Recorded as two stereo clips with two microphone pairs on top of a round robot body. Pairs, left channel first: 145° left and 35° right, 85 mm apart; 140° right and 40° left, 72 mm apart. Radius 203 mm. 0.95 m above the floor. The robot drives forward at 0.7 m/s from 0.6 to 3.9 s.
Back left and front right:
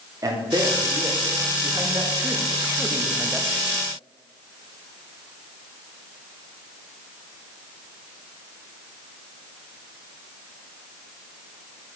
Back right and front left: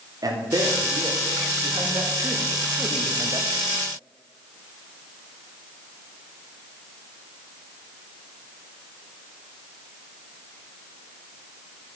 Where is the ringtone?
I don't hear a ringtone.